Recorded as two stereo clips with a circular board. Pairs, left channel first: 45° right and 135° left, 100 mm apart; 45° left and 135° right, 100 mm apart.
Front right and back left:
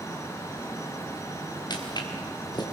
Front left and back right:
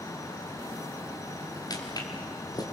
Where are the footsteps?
5° right, 4.5 m.